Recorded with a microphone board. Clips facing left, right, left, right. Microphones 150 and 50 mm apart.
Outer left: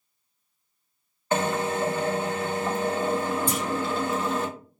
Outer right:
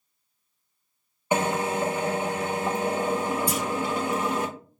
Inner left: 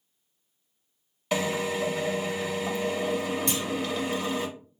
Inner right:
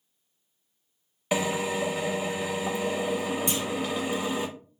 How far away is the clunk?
About 2.5 m.